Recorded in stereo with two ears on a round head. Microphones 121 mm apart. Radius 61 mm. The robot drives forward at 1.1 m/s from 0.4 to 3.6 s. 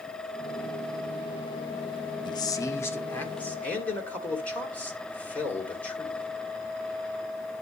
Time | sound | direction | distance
2.2 | a man speaking | 35° left (ahead or behind) | 0.8 m